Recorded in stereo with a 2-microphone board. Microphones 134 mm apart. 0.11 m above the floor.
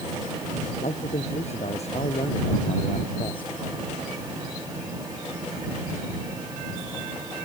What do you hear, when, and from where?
0.8 s a man speaking: 60° left (ahead or behind); by 3.5 s 40° left (ahead or behind)